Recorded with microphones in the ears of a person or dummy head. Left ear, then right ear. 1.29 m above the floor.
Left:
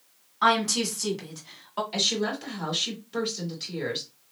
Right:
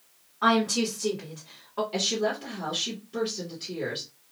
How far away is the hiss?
No hiss in this recording.